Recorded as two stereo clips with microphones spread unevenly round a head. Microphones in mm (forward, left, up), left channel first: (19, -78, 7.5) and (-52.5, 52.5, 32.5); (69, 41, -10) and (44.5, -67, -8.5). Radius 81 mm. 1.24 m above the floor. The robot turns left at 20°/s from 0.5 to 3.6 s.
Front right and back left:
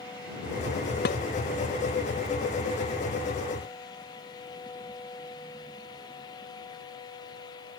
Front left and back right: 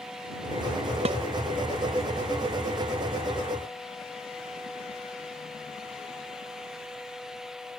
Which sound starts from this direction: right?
Dishes clattering, at 1.1 s.